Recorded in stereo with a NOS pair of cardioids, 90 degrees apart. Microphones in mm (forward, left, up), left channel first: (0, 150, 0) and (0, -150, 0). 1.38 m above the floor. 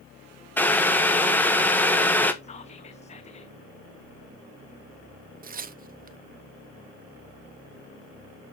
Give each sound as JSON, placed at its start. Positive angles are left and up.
{"t": 0.6, "sound": "boiling", "azimuth_deg": 5, "distance_m": 1.2}
{"t": 2.4, "sound": "whispering", "azimuth_deg": 20, "distance_m": 0.5}
{"t": 5.4, "sound": "tearing paper", "azimuth_deg": -30, "distance_m": 0.6}